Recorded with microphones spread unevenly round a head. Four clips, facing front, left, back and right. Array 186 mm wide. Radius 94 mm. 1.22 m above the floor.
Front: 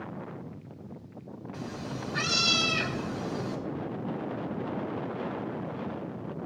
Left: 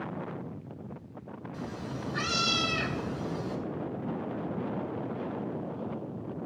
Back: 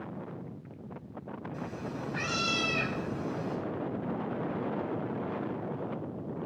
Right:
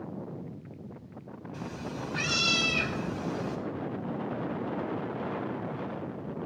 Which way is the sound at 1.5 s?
5° right.